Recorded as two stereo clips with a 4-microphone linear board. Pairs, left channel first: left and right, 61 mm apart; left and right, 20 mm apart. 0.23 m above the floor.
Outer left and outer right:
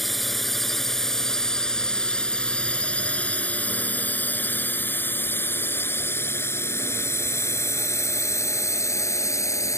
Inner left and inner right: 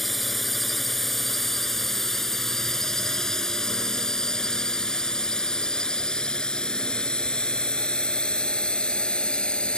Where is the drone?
Centre (ahead or behind); by 9.8 s 55° left (ahead or behind).